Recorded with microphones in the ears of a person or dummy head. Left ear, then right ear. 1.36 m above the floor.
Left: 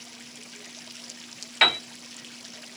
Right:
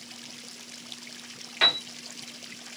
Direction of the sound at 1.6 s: 15° left (ahead or behind).